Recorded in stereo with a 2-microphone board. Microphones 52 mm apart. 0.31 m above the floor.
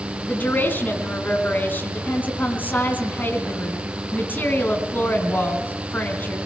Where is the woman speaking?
35° left (ahead or behind), 3.5 m.